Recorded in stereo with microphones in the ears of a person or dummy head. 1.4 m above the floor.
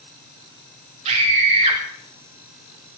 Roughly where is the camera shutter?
No camera shutter in this recording.